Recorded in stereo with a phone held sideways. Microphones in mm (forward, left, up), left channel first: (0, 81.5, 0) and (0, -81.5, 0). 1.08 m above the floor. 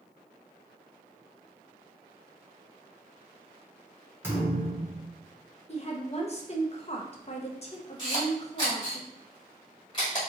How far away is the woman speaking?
About 0.7 m.